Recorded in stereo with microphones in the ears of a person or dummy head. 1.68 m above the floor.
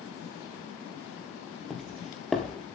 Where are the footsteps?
Centre (ahead or behind), 2.0 m.